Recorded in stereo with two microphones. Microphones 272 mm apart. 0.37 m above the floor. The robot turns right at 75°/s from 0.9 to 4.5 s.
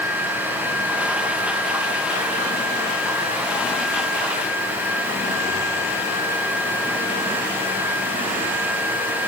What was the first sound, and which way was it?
Only background noise.